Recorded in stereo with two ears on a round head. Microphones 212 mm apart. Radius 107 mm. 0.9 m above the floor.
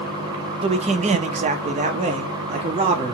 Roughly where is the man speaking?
Right.